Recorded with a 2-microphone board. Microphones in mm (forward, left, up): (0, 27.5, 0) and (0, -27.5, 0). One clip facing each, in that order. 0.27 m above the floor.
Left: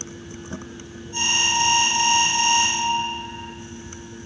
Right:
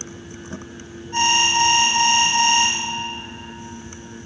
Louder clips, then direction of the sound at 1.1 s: Right 4 dB; 55° right (ahead or behind).